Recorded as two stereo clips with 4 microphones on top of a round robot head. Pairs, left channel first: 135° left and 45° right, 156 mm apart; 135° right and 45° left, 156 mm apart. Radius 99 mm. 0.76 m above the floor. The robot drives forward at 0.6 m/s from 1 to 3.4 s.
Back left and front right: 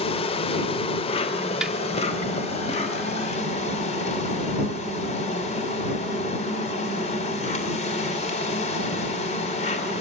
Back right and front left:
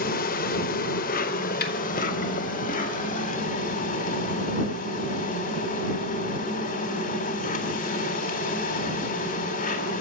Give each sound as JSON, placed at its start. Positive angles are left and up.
{"t": 0.0, "sound": "an insect", "azimuth_deg": -170, "distance_m": 1.5}
{"t": 1.6, "sound": "a snare drum", "azimuth_deg": -130, "distance_m": 2.5}